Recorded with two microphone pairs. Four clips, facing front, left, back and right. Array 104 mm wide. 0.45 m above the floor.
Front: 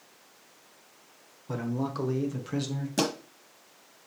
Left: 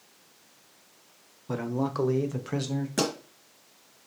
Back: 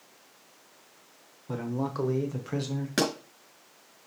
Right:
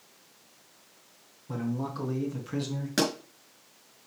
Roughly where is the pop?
Behind right.